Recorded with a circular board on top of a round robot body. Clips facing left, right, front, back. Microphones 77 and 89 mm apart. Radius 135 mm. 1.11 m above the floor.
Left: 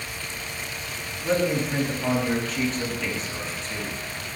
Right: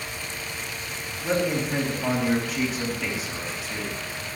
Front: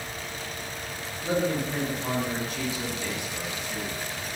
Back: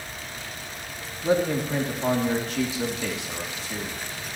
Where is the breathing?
No breathing in this recording.